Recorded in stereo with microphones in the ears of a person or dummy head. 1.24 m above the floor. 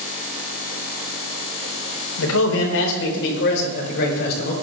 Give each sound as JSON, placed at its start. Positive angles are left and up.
{"t": 2.2, "sound": "a man speaking", "side_deg": 80, "distance_m": 4.5}